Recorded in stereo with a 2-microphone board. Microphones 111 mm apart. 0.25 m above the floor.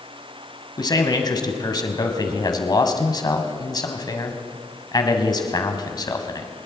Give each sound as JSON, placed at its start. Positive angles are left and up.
{"t": 0.8, "sound": "a man speaking", "side_deg": 40, "distance_m": 1.6}